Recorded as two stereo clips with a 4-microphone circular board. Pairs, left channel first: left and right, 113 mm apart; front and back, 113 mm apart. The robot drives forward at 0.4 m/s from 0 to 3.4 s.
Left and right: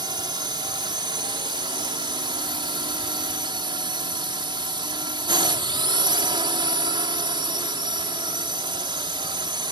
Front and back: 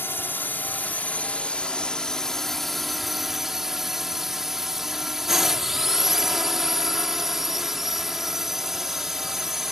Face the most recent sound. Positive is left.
turn(degrees=-95)